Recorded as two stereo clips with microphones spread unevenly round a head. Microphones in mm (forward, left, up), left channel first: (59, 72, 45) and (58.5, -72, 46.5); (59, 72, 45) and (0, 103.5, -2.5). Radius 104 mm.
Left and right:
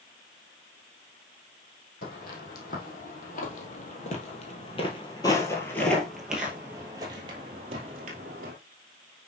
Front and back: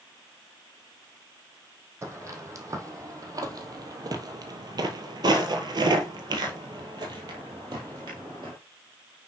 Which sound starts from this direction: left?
Footsteps, at 2.0 s.